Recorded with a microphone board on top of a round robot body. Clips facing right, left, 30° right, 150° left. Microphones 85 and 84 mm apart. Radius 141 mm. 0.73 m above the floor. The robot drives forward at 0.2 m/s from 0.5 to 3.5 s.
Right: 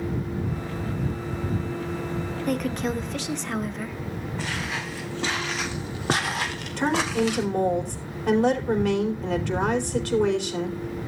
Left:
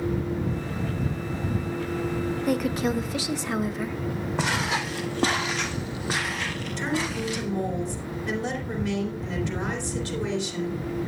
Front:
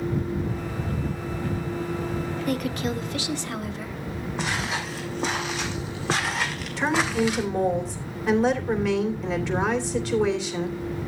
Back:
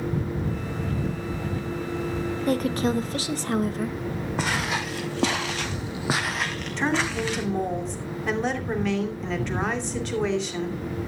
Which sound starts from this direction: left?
Footsteps, at 4.4 s.